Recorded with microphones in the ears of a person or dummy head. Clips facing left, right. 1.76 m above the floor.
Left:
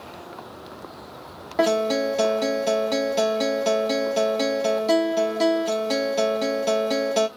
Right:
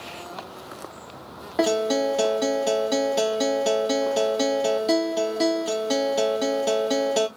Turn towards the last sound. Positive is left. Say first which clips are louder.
# left 1 dB
turn(degrees=-5)  # may be behind; listen again after turning